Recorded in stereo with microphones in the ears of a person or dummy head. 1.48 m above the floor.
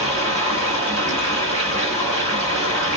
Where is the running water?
35° left (ahead or behind), 2 m.